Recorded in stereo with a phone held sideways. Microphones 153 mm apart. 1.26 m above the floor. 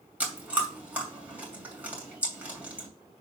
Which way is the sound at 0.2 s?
10° right (ahead or behind).